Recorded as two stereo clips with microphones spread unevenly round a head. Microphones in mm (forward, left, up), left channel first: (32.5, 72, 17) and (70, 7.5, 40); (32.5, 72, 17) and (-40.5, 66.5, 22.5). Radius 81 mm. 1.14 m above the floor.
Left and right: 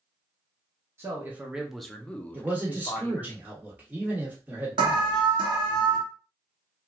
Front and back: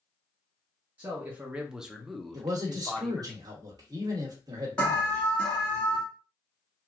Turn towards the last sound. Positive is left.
turn(degrees=-65)